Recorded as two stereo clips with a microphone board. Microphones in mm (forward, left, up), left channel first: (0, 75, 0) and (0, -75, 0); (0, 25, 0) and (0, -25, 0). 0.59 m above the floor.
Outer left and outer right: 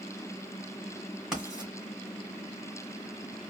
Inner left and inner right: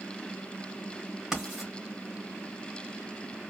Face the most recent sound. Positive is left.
turn(degrees=-5)  # may be behind; listen again after turning